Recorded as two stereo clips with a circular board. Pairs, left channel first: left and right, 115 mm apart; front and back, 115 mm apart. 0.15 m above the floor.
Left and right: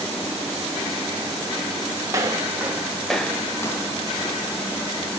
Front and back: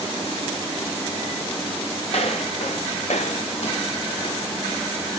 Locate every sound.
2.1 s footsteps: 30° right, 3 m; by 4.8 s 50° left, 3 m